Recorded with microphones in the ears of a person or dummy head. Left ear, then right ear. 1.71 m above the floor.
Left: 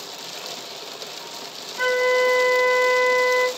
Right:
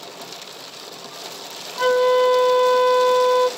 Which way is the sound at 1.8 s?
30° left (ahead or behind).